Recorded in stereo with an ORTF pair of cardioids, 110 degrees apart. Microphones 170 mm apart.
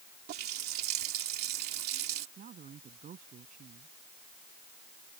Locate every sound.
0.3 s a running tap: 70° right
2.4 s a woman speaking: 50° right